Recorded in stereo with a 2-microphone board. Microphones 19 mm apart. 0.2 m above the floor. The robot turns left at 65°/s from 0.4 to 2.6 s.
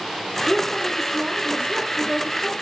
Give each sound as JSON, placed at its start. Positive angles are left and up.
{"t": 0.5, "sound": "a woman speaking", "azimuth_deg": 35, "distance_m": 3.5}